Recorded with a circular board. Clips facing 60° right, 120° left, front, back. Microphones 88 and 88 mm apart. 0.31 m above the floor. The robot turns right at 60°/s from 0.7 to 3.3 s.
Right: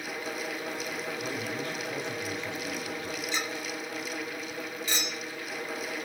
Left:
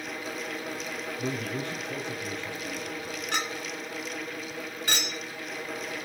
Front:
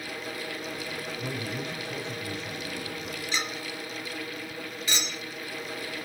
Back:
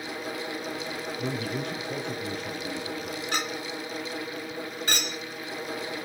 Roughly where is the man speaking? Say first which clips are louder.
Left 2 dB, back 4 dB; behind left.